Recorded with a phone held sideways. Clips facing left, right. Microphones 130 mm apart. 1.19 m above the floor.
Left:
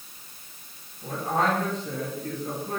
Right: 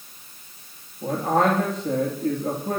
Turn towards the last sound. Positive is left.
turn(degrees=-70)  # may be behind; listen again after turning